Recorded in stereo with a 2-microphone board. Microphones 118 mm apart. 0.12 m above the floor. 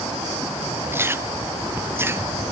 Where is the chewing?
20° right (ahead or behind).